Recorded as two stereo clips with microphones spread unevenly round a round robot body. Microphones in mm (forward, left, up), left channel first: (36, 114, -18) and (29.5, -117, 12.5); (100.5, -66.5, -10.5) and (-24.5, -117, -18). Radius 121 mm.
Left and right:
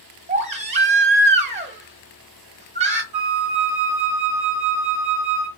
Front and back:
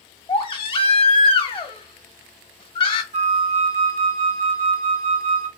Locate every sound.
0.3 s a baby crying: 30° right, 0.9 m
3.1 s a flute: 160° right, 1.9 m